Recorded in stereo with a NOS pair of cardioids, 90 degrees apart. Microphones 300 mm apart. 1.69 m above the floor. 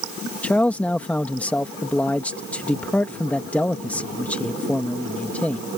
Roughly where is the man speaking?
Ahead.